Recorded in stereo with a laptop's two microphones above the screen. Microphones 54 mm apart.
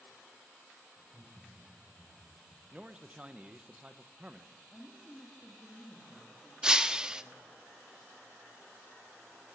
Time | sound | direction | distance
1.0 | laughter | 55° right (ahead or behind) | 4.5 m
2.7 | a man speaking | 25° right (ahead or behind) | 0.8 m
4.7 | a woman speaking | 10° left (ahead or behind) | 2.0 m
6.6 | breaking glass | 15° right (ahead or behind) | 0.6 m